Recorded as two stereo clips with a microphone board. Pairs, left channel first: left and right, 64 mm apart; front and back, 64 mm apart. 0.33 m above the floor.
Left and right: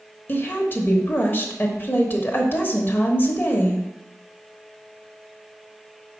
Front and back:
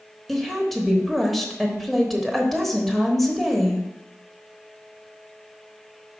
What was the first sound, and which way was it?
A woman speaking, 85° left.